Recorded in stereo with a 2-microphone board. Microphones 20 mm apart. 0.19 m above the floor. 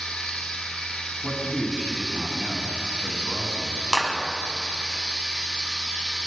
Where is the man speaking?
40° left (ahead or behind), 1.2 m.